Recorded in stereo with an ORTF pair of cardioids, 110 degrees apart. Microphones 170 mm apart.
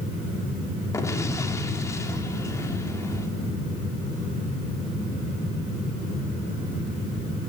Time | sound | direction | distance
0.9 | an explosion | 20° left | 3.5 m